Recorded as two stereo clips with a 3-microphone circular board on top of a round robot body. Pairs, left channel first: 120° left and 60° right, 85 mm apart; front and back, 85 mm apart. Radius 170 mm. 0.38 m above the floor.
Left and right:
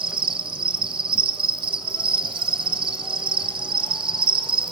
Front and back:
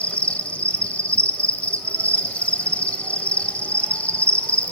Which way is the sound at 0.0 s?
75° right.